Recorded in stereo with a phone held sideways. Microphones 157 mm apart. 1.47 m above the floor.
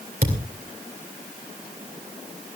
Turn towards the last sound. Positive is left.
turn(degrees=-65)  # may be behind; listen again after turning